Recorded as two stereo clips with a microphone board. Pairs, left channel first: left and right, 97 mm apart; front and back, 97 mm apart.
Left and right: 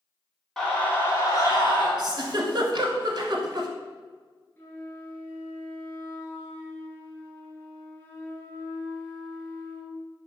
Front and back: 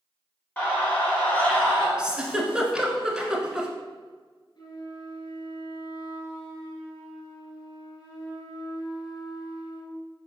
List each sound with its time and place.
0.6 s a scream: 15° left, 1.1 m; by 1.9 s 75° left, 1.9 m
2.0 s a giggle: 100° right, 0.6 m
4.6 s a flute: 25° left, 0.9 m